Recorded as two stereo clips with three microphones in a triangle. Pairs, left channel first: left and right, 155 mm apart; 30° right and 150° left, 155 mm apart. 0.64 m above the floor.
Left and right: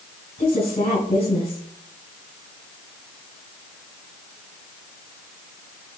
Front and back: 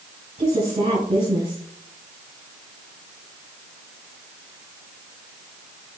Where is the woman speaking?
100° left, 4 m.